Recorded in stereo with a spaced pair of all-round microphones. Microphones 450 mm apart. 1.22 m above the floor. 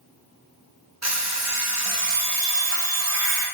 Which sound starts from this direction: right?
An alarm clock, at 1.0 s.